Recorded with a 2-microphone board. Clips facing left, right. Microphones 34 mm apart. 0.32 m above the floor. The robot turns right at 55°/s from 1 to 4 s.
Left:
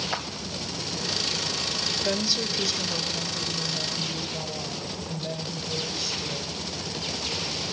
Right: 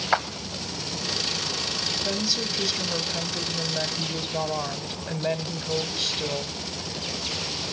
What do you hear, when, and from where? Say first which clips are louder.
0.1 s a clap: right 12 dB; 50° right (ahead or behind), 1.1 m
2.0 s a woman speaking: left 1 dB; 165° left, 1.7 m; by 6.6 s 85° right, 1.7 m